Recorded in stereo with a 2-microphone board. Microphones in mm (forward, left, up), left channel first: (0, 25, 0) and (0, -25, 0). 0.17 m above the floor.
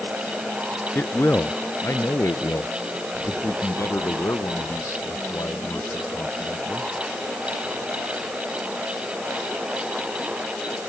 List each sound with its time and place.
0.9 s a man speaking: 45° left (ahead or behind); by 6.9 s 65° left (ahead or behind)